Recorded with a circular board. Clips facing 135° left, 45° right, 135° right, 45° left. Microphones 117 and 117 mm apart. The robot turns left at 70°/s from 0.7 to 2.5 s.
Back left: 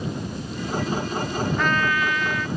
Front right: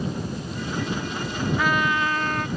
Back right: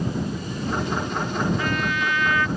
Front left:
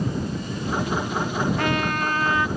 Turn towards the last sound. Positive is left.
turn(degrees=-20)